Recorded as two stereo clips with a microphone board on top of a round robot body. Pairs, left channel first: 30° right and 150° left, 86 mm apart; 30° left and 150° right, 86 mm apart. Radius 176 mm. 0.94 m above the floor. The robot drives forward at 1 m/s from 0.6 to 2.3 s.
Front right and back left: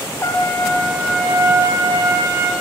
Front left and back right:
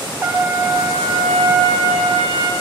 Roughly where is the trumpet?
Right.